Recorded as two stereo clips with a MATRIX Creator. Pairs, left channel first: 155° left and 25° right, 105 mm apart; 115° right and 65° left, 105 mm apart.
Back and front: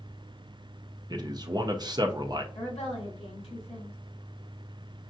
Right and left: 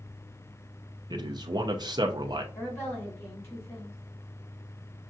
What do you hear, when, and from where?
1.1 s a man speaking: 25° left, 0.6 m
2.5 s a woman speaking: straight behind, 3 m